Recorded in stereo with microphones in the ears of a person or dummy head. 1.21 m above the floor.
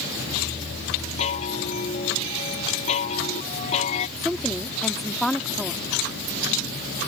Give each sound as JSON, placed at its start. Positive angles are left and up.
{"t": 1.2, "sound": "a chime", "side_deg": 35}
{"t": 4.2, "sound": "a woman speaking", "side_deg": 10}